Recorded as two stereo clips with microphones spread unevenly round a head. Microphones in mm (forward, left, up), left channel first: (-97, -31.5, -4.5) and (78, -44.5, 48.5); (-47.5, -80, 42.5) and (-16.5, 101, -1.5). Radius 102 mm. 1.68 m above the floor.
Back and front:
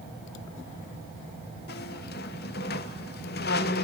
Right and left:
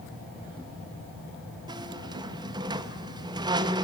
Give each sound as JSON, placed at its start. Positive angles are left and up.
{"t": 1.7, "sound": "a squeak", "azimuth_deg": 155, "distance_m": 1.0}